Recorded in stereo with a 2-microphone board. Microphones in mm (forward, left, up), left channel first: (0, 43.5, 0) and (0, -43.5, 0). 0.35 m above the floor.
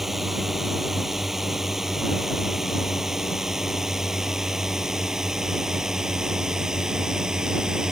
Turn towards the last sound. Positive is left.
turn(degrees=-10)  # may be behind; listen again after turning